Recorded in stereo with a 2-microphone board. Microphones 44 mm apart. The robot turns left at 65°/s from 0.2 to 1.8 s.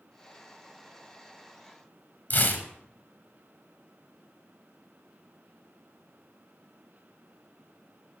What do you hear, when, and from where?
2.3 s tearing paper: 45° left (ahead or behind), 0.9 m